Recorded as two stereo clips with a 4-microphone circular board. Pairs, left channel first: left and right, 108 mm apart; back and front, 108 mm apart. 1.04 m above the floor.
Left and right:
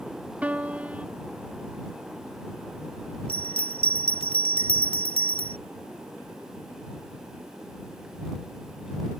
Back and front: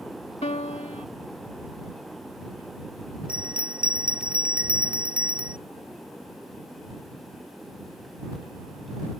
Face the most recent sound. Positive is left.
turn(degrees=75)